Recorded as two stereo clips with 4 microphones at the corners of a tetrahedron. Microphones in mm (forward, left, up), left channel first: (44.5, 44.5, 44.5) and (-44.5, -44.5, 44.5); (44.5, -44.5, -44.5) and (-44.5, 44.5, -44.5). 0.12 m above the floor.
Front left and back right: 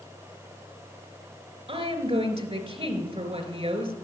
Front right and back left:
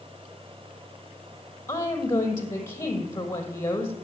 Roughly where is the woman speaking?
Right.